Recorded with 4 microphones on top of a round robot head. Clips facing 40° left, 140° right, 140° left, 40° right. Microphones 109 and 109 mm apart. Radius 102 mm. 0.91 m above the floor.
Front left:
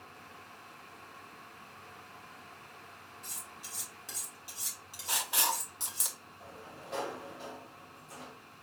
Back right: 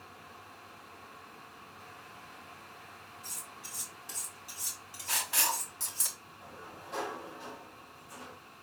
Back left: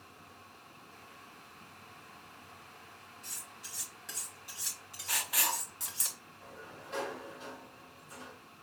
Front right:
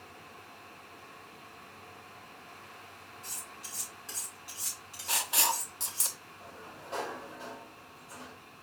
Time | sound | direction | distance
3.2 | cutlery clinking | 45° left | 2.5 m
5.1 | writing | 15° right | 0.6 m
6.4 | a sliding door | 20° left | 2.0 m